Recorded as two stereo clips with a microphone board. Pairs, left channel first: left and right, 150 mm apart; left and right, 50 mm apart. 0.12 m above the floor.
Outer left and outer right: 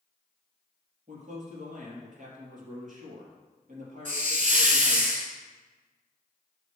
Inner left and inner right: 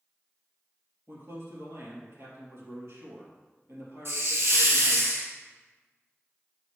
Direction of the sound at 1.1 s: 60° right (ahead or behind).